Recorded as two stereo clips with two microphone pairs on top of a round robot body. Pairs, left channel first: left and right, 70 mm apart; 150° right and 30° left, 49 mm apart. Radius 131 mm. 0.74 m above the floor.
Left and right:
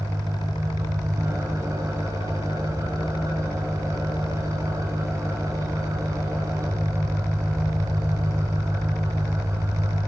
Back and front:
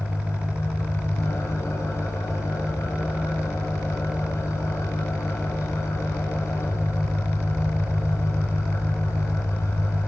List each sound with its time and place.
0.0 s an engine running: 130° right, 3.5 m